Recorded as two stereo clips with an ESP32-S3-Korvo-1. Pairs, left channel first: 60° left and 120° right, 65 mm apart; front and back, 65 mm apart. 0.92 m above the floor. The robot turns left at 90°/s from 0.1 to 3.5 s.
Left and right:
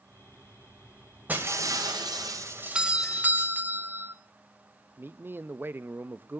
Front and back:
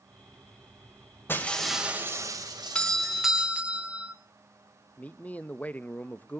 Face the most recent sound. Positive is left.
turn(degrees=-65)